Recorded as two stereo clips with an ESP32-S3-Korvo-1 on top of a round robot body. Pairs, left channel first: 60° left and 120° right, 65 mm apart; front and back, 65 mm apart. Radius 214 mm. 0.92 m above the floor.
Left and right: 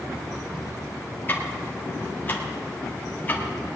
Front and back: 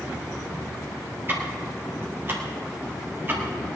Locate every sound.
1.3 s ticking: 125° left, 2.5 m